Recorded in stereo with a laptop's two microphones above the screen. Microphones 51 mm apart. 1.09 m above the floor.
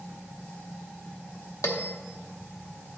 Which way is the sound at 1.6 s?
65° left (ahead or behind).